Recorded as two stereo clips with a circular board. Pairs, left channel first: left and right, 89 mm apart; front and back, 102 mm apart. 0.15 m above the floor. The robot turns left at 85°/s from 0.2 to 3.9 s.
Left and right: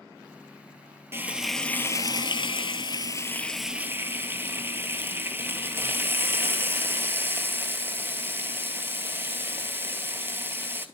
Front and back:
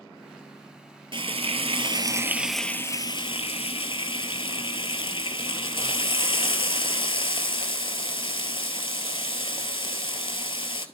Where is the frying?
150° right, 0.7 m; by 10.9 s 25° right, 0.7 m.